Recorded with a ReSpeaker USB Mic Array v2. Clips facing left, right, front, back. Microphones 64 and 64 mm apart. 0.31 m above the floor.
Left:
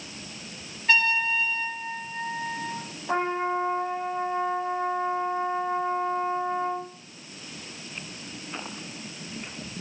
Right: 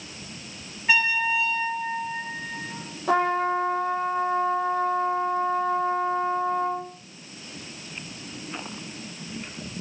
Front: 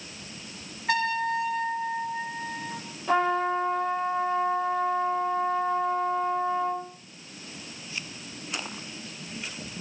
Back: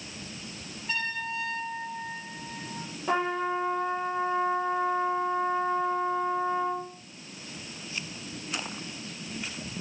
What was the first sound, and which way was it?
A trumpet, 15° right.